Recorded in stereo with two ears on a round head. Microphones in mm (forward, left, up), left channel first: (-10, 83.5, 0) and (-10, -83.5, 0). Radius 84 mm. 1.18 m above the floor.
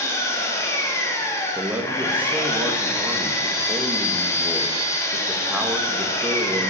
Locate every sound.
0.0 s an engine running: 15° left (ahead or behind), 2 m
1.6 s a man speaking: 10° right (ahead or behind), 1.8 m